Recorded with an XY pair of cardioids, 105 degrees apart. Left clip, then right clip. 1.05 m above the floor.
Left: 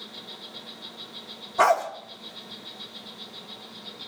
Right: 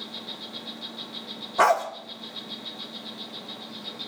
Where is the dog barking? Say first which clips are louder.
Even; 15° right, 1.6 m.